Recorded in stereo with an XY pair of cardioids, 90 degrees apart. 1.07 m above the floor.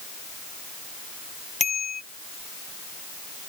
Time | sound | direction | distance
1.6 | a bicycle bell | 45° left | ?